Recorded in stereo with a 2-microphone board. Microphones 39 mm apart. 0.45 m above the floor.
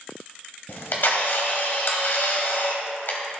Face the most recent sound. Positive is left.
turn(degrees=70)  # may be behind; listen again after turning